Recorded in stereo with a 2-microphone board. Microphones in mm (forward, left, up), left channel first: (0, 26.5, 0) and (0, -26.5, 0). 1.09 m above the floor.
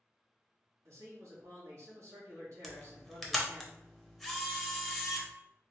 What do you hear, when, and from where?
0.8 s a man speaking: 65° right (ahead or behind), 1.6 m
2.6 s a camera shutter: centre (ahead or behind), 0.7 m